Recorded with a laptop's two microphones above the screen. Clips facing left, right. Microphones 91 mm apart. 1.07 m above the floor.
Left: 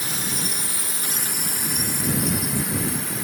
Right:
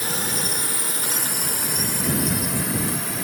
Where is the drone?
50° right (ahead or behind); by 3.2 s 75° right (ahead or behind).